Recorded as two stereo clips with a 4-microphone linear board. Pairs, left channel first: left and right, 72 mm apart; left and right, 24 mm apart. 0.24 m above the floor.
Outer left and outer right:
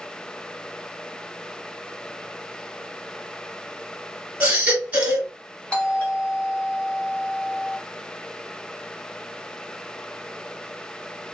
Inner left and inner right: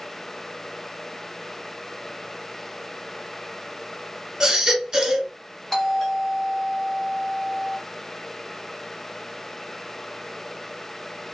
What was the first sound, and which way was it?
A baby crying, 20° right (ahead or behind).